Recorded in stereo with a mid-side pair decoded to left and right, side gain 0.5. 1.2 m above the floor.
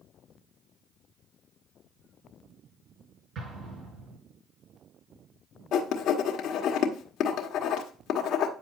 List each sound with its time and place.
3.4 s an explosion: 50° right, 5.5 m
5.7 s writing: 65° left, 1.6 m